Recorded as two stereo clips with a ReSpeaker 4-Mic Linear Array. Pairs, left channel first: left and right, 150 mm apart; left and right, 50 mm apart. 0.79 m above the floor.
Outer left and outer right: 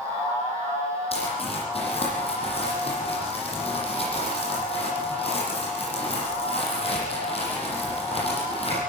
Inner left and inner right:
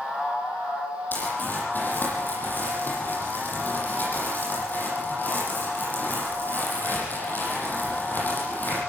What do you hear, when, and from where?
1.1 s crumpling: 45° left (ahead or behind), 9.5 m